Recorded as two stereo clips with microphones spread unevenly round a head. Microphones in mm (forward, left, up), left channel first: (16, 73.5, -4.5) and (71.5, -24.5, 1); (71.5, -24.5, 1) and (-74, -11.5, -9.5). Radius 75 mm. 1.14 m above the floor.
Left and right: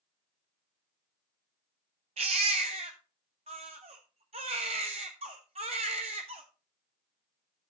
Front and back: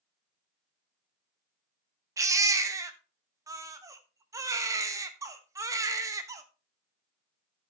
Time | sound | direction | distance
2.2 | a baby crying | 115° right | 1.1 m